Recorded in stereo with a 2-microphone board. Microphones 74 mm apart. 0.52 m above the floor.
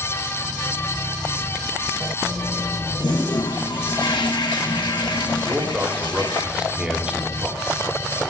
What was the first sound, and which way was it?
A toilet flushing, 80° left.